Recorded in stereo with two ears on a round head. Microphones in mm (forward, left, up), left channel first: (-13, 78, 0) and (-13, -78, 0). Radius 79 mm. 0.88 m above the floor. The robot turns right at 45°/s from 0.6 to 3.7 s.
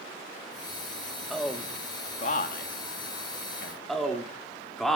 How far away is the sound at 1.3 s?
About 1.4 m.